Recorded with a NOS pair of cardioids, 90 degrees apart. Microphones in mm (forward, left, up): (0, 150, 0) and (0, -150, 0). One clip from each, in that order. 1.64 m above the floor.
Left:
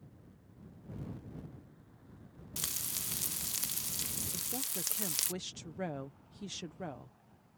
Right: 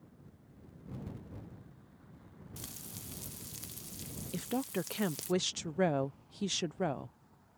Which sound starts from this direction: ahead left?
Frying, at 2.6 s.